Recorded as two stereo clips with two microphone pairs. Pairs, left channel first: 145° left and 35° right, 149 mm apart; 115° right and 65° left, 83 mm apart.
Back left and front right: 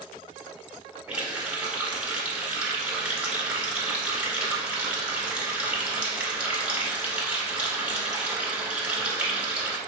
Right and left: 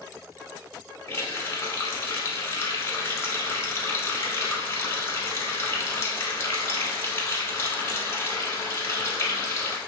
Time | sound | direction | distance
1.1 | a running tap | 105° right | 0.9 m